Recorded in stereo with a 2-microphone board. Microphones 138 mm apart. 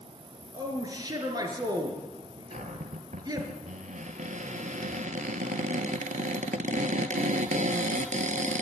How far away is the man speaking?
About 4 m.